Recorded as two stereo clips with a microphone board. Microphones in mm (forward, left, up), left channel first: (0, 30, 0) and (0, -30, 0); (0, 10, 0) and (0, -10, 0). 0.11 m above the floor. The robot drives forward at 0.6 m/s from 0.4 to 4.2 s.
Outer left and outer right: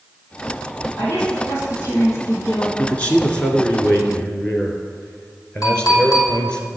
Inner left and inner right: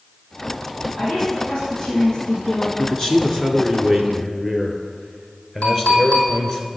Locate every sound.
1.0 s a woman speaking: 50° left (ahead or behind), 3.5 m; by 2.7 s 60° left (ahead or behind), 3 m
2.8 s a man speaking: 25° left (ahead or behind), 1.1 m; by 6.6 s 20° left (ahead or behind), 1.5 m
5.6 s a clink: 75° left (ahead or behind), 3 m